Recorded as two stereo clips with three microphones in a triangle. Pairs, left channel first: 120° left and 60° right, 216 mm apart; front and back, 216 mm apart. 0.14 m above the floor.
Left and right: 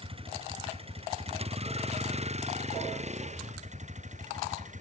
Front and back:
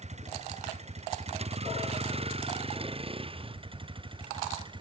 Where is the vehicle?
125° right; by 4.8 s 115° right.